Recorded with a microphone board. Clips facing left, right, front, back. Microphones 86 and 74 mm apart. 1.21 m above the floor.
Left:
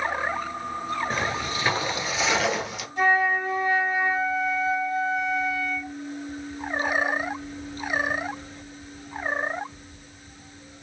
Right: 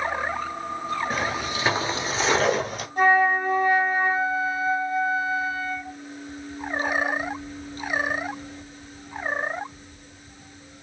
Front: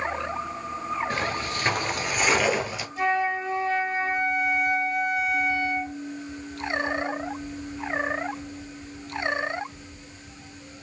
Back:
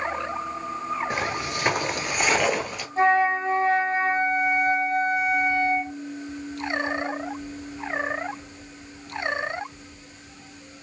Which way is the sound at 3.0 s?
130° right.